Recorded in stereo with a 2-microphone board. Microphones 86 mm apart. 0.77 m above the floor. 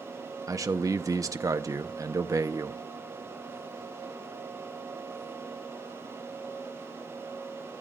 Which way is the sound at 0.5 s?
40° right (ahead or behind).